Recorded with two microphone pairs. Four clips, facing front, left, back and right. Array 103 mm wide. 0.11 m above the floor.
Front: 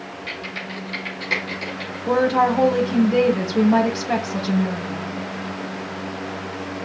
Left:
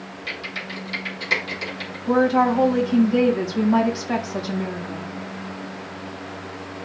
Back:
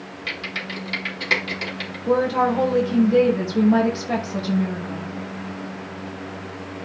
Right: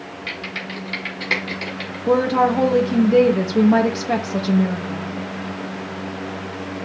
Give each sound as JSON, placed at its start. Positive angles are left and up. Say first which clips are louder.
{"t": 0.3, "sound": "typing on a keyboard", "louder": "right 2 dB, back 3 dB", "azimuth_deg": -125, "distance_m": 5.0}
{"t": 2.1, "sound": "a woman speaking", "louder": "right 1 dB, front 2 dB", "azimuth_deg": -85, "distance_m": 4.0}